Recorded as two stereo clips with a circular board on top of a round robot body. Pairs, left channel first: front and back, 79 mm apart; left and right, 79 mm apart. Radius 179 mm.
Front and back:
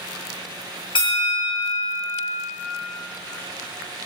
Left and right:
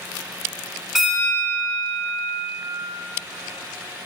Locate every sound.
0.9 s a bell: straight ahead, 1.2 m